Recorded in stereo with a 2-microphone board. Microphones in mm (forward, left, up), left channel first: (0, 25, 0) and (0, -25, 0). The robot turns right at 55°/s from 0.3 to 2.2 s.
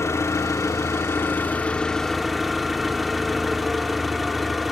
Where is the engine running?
75° left, 1.0 m; by 4.7 s straight behind, 1.0 m.